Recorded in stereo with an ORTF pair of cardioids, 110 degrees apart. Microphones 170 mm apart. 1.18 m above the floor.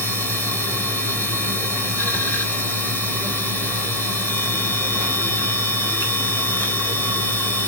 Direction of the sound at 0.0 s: 10° left.